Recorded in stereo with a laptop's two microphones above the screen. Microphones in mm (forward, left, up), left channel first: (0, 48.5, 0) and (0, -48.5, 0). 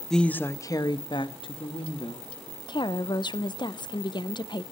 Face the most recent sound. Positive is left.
turn(degrees=50)  # may be behind; listen again after turning